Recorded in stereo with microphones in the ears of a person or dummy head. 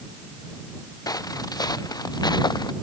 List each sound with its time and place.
1.1 s footsteps: 20° left (ahead or behind); by 2.7 s 25° left (ahead or behind)